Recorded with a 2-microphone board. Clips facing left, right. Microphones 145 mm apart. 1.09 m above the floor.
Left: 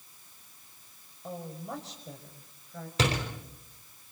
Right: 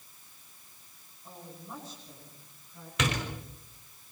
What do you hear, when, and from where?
1.2 s a woman speaking: 80° left, 6 m; by 2.9 s 85° left, 6.5 m
3.0 s a door slam: 30° left (ahead or behind), 4.5 m